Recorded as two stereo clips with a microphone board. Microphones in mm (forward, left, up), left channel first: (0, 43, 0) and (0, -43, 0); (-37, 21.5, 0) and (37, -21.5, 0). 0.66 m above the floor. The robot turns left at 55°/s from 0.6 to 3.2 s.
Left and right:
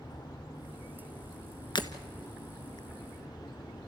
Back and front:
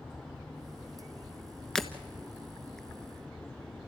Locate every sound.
1.8 s breaking glass: 65° left, 1.2 m; by 1.9 s 55° left, 1.2 m